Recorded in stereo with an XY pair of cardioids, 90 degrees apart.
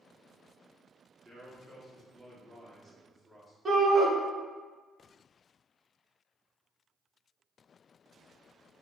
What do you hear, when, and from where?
1.2 s a man speaking: 25° right, 1.5 m
3.6 s a shout: 35° right, 1.5 m